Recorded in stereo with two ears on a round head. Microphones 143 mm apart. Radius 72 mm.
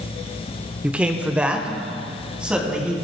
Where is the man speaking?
10° right (ahead or behind), 0.8 m; by 3.0 s 5° right (ahead or behind), 3.5 m.